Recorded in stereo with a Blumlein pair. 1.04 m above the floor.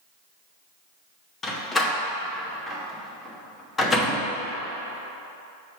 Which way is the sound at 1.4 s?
15° left.